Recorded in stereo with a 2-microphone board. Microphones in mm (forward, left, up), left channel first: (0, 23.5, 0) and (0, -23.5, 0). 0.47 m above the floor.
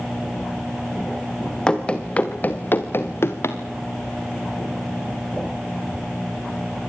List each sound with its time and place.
1.7 s running footsteps: 20° left (ahead or behind), 2.5 m; by 3.6 s 70° left (ahead or behind), 2.5 m